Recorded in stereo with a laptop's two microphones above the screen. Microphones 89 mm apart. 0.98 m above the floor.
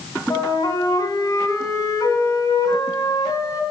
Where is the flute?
45° left (ahead or behind), 1.9 m.